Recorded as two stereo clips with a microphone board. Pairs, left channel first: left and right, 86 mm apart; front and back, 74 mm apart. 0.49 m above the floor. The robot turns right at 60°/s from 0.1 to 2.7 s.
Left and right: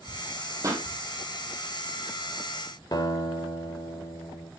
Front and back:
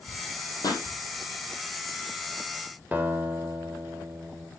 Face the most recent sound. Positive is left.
turn(degrees=120)